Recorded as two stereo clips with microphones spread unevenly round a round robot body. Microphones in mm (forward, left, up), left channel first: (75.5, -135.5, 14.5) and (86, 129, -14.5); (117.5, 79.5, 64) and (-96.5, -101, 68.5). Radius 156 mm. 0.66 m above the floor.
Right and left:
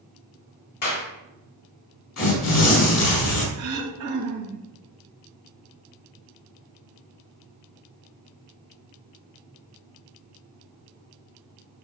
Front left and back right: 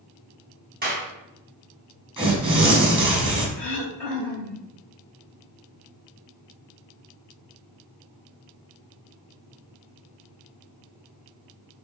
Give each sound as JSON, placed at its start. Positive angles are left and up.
{"t": 0.8, "sound": "a clap", "azimuth_deg": -80, "distance_m": 4.0}
{"t": 2.2, "sound": "tearing paper", "azimuth_deg": -65, "distance_m": 4.5}
{"t": 3.6, "sound": "throat clearing", "azimuth_deg": 125, "distance_m": 3.0}